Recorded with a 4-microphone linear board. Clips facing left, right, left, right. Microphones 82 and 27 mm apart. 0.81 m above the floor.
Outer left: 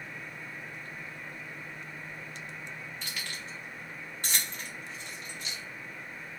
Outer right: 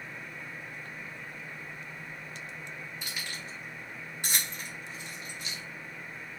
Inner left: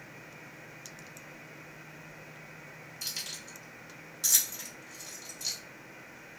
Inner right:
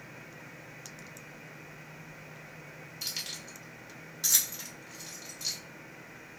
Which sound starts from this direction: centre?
Keys jangling, at 3.0 s.